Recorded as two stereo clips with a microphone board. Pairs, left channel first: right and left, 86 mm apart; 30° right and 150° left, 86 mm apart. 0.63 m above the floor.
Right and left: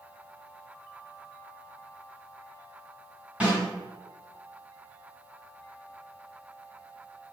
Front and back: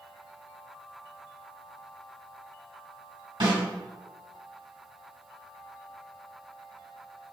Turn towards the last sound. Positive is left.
turn(degrees=165)